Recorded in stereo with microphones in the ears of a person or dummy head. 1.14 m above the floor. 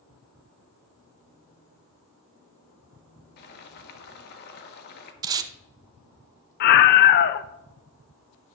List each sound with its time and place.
3.4 s boiling: 55° left (ahead or behind), 1.4 m
5.2 s tape being pulled: 20° right (ahead or behind), 0.7 m
6.6 s a scream: 50° left (ahead or behind), 0.5 m